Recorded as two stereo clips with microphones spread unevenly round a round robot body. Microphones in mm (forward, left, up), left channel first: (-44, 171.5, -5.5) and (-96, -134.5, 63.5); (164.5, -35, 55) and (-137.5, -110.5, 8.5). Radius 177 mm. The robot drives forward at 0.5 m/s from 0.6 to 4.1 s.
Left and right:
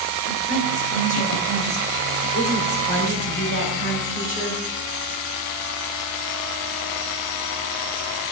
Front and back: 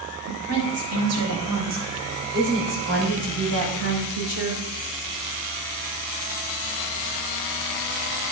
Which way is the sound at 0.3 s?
145° left.